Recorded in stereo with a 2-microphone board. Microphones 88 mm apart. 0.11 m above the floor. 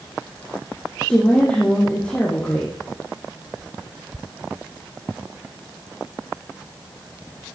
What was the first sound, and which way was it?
A woman speaking, 15° left (ahead or behind).